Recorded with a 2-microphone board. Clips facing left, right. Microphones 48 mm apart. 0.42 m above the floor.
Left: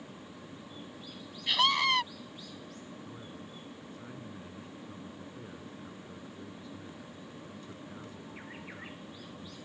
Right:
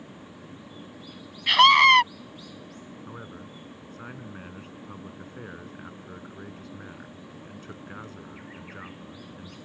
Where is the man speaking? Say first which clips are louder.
Right 5 dB; 60° right (ahead or behind).